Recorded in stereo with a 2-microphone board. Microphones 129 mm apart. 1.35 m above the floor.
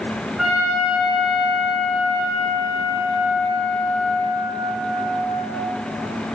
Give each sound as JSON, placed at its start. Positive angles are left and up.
{"t": 0.4, "sound": "a trumpet", "side_deg": 0, "distance_m": 7.0}